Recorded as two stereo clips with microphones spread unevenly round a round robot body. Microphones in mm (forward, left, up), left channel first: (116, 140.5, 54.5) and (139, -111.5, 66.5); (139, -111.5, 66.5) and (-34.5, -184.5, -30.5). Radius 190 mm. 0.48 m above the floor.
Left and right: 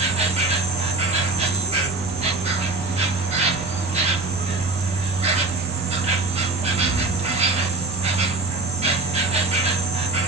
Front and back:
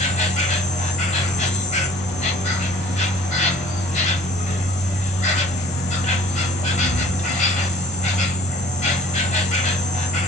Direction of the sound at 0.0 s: 50° right.